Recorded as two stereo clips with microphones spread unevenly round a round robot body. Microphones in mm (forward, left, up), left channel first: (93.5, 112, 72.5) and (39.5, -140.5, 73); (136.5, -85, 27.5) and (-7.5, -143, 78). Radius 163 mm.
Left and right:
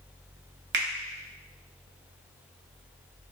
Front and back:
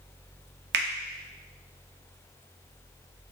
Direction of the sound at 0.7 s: 145° right.